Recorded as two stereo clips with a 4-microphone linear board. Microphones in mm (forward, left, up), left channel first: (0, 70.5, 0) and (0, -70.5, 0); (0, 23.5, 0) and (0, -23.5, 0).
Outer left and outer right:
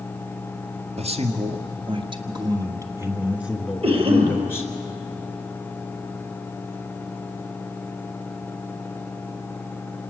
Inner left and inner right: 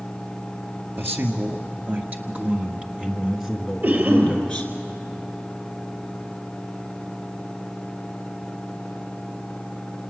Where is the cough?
45° right (ahead or behind), 3 m.